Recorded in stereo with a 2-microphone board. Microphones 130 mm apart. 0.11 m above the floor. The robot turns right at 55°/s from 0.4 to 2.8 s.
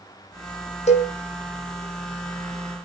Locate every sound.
0.9 s a cowbell: 60° left (ahead or behind), 3 m; by 1.1 s 45° left (ahead or behind), 3 m